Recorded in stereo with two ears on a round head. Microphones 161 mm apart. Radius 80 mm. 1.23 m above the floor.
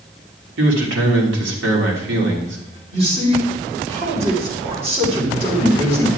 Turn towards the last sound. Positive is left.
turn(degrees=-40)  # may be behind; listen again after turning